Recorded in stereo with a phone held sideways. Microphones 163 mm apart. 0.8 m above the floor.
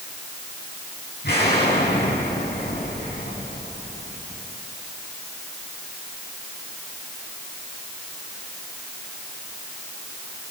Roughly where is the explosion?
Left.